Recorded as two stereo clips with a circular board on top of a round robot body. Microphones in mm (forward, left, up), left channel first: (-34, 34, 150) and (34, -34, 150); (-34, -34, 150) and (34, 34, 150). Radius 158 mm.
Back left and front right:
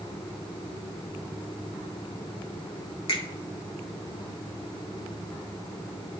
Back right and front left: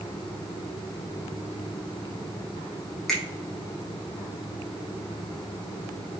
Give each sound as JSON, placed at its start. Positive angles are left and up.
{"t": 3.1, "sound": "a finger snap", "azimuth_deg": 140, "distance_m": 3.5}